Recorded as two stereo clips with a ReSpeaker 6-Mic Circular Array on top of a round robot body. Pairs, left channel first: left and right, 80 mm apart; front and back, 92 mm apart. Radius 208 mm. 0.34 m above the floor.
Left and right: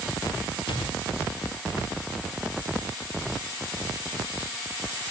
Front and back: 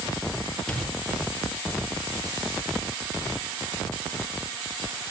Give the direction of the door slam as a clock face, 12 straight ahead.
9 o'clock.